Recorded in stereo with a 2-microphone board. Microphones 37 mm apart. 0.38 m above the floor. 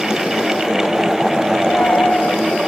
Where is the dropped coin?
50° left (ahead or behind).